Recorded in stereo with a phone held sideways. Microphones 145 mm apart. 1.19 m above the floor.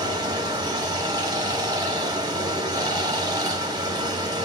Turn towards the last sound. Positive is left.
turn(degrees=-25)  # may be behind; listen again after turning